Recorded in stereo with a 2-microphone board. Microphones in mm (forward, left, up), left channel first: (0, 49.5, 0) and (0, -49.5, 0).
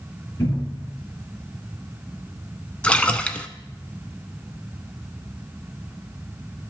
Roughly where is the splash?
Centre.